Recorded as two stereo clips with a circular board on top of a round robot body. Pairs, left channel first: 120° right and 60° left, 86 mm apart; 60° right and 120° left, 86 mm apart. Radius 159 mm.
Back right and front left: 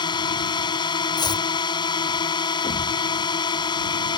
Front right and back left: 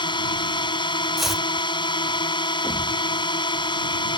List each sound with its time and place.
0.0 s a drone: 90° right
1.2 s chopping: 150° right
2.6 s a thud: 130° right